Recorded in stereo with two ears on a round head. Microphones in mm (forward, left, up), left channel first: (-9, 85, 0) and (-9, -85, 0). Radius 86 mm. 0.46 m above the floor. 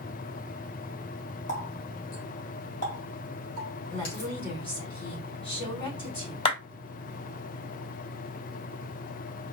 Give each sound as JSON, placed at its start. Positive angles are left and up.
{"t": 1.5, "sound": "a running tap", "side_deg": 55, "distance_m": 1.8}
{"t": 3.9, "sound": "a woman speaking", "side_deg": 30, "distance_m": 1.7}
{"t": 6.5, "sound": "a clap", "side_deg": 35, "distance_m": 1.5}